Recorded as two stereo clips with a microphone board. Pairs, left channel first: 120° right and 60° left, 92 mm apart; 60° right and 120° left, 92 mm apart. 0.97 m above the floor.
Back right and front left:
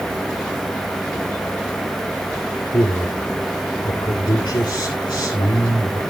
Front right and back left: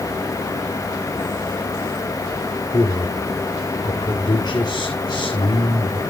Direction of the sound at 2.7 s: 95° right.